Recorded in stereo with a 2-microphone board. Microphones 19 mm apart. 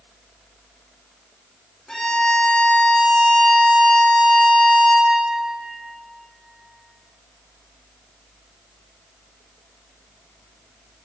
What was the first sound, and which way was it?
A violin, 30° left (ahead or behind).